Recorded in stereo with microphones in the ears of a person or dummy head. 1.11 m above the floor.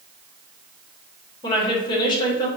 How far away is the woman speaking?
About 0.9 m.